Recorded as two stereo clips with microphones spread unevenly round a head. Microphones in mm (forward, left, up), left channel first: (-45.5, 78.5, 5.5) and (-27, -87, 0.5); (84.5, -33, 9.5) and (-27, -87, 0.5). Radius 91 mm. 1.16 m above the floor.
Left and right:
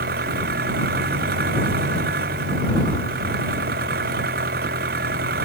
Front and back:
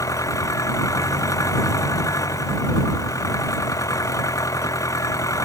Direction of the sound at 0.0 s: 40° right.